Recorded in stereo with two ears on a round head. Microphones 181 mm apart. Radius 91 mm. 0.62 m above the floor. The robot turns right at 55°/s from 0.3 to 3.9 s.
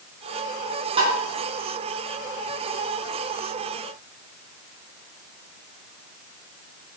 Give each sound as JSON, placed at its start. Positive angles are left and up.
{"t": 1.0, "sound": "tapping", "side_deg": -30, "distance_m": 4.5}